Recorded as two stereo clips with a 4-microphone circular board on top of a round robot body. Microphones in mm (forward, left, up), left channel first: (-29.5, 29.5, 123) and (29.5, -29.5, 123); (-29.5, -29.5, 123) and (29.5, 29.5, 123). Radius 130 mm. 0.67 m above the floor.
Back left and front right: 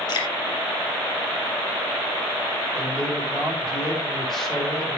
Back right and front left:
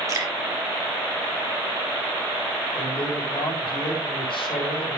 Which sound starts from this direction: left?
Dripping, at 0.1 s.